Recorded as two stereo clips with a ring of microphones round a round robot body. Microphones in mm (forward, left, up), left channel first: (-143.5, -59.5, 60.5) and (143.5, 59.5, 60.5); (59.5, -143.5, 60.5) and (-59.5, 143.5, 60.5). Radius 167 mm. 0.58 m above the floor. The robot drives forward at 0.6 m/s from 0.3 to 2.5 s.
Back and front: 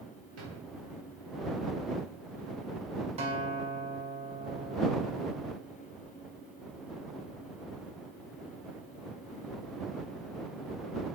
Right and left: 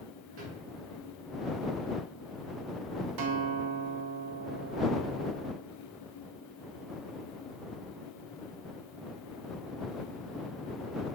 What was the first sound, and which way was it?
A drawer, 65° left.